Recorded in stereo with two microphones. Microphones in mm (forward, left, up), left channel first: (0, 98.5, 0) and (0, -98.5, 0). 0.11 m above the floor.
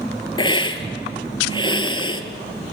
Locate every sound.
0.4 s a hiss: 25° left (ahead or behind), 1.9 m